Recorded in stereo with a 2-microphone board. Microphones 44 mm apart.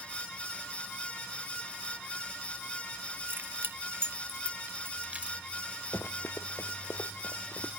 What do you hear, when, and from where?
3.3 s keys jangling: 50° right (ahead or behind); by 5.4 s 30° right (ahead or behind)
5.9 s running footsteps: 70° left (ahead or behind); by 7.7 s 75° left (ahead or behind)